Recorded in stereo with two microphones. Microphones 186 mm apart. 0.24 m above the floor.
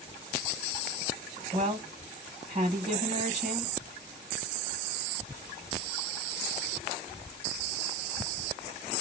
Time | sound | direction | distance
1.5 | a woman speaking | 40° right (ahead or behind) | 1.3 m